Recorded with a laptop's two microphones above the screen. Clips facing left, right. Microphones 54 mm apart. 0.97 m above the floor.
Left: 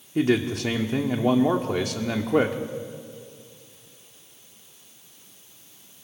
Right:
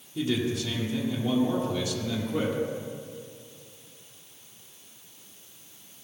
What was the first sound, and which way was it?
A man speaking, 55° left (ahead or behind).